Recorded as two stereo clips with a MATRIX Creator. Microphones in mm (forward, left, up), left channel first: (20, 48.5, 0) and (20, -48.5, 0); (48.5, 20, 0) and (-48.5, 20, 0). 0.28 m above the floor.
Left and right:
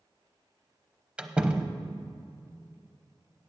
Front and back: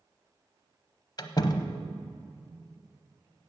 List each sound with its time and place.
1.2 s a door slam: 15° right, 0.8 m